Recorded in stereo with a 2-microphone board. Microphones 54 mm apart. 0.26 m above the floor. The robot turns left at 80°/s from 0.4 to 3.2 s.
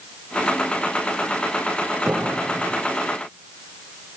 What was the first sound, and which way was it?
A piano, 10° right.